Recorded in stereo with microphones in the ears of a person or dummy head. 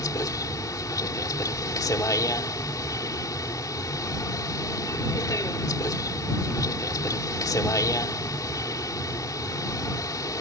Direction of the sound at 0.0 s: 15° left (ahead or behind).